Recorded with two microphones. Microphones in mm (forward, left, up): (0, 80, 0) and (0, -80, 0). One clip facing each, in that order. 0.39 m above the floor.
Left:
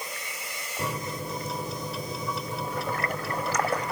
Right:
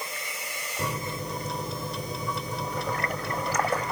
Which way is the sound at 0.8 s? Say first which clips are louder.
Even; centre (ahead or behind).